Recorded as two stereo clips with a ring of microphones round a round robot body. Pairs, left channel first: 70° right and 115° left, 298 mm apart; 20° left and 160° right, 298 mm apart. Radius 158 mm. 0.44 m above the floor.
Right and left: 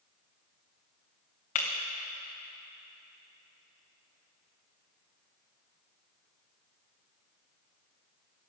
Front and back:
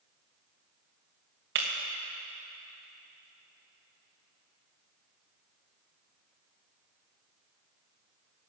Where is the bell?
I don't hear a bell.